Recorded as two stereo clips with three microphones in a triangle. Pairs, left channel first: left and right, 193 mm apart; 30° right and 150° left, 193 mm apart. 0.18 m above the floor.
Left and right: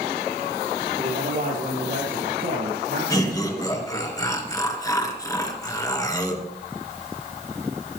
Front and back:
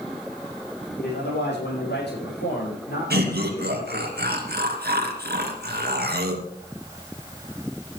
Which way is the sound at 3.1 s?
160° left.